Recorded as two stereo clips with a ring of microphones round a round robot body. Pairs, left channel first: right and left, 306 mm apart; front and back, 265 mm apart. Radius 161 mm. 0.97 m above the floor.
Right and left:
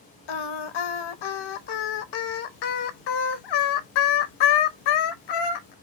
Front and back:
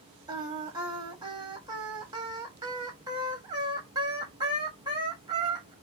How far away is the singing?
About 0.8 m.